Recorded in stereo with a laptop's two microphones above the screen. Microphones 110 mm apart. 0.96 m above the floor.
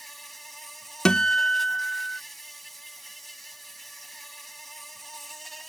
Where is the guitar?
10° left (ahead or behind).